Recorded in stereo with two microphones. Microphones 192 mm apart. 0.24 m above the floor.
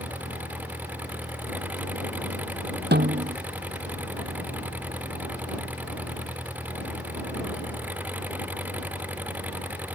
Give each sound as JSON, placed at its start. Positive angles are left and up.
{"t": 0.0, "sound": "an engine running", "side_deg": -10}
{"t": 2.9, "sound": "a snare drum", "side_deg": -60}